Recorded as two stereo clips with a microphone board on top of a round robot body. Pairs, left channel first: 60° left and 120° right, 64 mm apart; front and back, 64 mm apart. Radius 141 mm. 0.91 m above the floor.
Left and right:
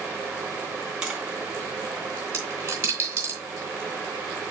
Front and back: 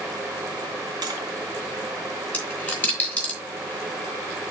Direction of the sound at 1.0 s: 160° left.